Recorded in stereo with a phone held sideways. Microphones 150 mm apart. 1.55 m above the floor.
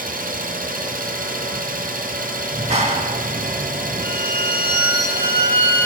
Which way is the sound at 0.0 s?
70° right (ahead or behind).